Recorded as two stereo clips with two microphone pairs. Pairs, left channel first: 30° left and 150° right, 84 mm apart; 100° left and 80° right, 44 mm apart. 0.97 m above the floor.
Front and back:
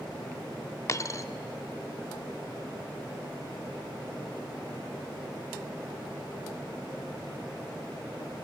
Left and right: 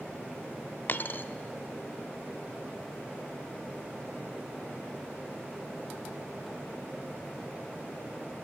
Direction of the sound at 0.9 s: 75° left.